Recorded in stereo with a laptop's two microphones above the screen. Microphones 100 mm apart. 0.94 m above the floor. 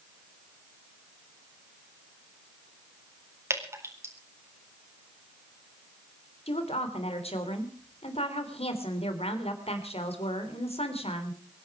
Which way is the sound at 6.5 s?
80° left.